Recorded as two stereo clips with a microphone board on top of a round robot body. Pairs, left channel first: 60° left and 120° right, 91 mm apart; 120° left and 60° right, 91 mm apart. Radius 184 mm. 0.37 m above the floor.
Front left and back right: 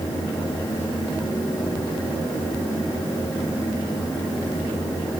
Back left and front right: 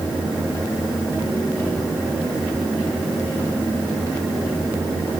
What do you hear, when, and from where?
Only background noise.